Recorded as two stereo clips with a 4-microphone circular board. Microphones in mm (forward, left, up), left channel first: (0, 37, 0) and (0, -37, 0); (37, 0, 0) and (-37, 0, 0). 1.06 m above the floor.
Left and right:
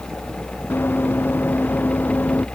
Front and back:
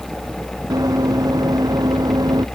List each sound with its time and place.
0.7 s running footsteps: 150° left; by 2.5 s 155° left